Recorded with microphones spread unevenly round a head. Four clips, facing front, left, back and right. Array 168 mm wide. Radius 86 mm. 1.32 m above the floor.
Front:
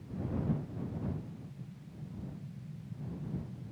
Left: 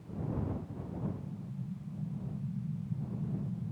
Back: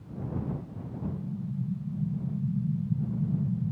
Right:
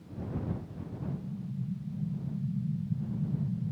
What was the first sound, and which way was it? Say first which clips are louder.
An explosion: right 2 dB, back 6 dB; 155° right.